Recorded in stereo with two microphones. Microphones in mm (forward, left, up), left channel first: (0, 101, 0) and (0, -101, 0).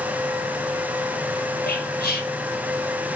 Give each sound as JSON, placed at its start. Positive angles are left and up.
{"t": 1.7, "sound": "whispering", "side_deg": 50, "distance_m": 2.5}